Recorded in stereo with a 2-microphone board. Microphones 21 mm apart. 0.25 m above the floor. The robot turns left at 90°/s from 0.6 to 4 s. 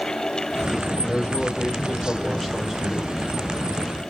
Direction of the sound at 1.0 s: 125° left.